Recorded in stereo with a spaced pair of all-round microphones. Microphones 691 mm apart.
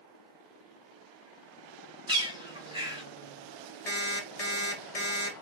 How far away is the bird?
About 1.1 m.